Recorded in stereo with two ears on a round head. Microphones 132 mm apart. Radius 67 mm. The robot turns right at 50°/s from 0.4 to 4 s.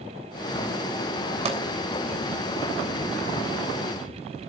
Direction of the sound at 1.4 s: 40° right (ahead or behind).